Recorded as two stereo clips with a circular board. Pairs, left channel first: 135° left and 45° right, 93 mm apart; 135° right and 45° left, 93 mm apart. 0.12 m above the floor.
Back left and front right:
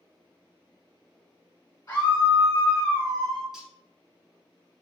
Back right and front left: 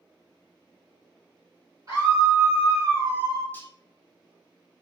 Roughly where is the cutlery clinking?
Behind right.